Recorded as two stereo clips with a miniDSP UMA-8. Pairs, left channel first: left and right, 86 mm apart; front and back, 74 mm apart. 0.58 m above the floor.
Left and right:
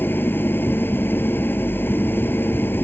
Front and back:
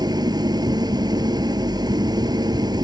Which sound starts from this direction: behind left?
An engine running, at 0.0 s.